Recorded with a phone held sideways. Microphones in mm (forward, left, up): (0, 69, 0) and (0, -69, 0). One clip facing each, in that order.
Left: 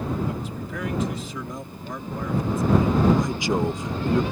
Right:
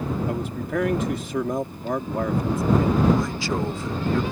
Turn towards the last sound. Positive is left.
turn(degrees=15)  # may be behind; listen again after turning